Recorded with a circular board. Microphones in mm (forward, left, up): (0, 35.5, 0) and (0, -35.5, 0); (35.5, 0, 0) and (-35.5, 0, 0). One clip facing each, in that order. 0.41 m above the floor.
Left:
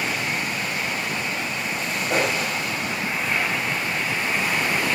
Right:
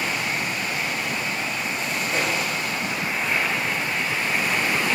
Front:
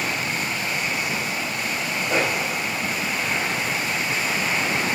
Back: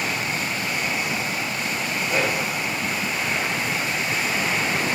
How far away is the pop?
About 7 m.